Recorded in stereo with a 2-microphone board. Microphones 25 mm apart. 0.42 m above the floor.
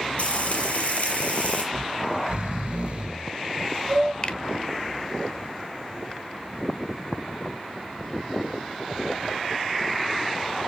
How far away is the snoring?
About 2 m.